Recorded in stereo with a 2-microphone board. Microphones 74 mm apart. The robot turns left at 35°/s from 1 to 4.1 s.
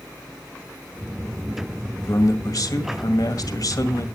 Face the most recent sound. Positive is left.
turn(degrees=55)